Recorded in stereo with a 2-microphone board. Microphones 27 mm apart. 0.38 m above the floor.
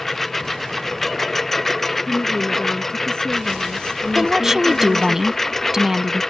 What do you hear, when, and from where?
0.0 s a lawn mower: 10° left (ahead or behind)
2.0 s a woman speaking: 30° left (ahead or behind)
4.2 s a woman speaking: 20° right (ahead or behind)